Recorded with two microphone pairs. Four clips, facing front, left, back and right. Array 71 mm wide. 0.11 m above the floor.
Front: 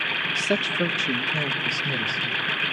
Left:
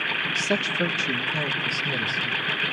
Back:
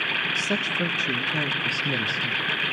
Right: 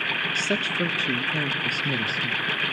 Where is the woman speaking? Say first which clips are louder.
Left 2 dB, front 2 dB; 5° right, 1.4 m; by 2.4 s 135° right, 1.6 m.